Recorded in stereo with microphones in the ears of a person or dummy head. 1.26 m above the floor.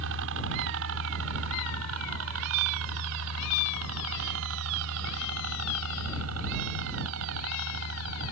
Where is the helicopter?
65° right (ahead or behind); by 8.3 s 80° right.